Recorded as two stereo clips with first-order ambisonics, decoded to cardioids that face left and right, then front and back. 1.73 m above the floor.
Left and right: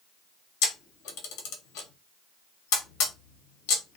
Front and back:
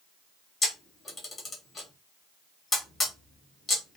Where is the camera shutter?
70° left, 0.8 m.